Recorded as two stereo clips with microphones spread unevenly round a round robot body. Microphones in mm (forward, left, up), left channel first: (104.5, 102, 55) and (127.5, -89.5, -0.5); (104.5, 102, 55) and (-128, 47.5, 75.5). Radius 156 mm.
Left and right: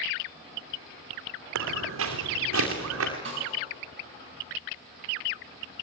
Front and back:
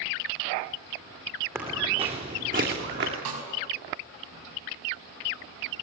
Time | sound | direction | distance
1.6 | footsteps | 85° right | 2 m
3.2 | a snare drum | 145° right | 5 m